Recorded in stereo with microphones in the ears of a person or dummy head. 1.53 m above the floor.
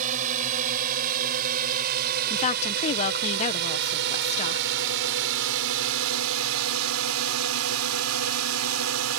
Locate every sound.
0.0 s a drone: 40° right (ahead or behind); by 9.2 s 85° right
2.3 s a woman speaking: 35° left (ahead or behind)